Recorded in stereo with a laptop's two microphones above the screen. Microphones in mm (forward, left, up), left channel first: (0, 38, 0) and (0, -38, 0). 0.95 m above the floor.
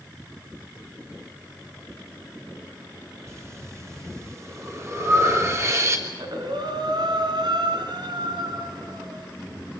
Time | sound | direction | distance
3.3 | breathing | 35° right (ahead or behind) | 3 m
6.1 | breathing | 75° right (ahead or behind) | 3 m